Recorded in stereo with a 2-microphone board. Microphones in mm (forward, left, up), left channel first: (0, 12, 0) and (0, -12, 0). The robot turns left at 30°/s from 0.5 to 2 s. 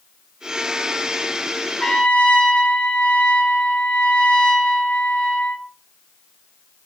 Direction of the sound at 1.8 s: 50° left (ahead or behind).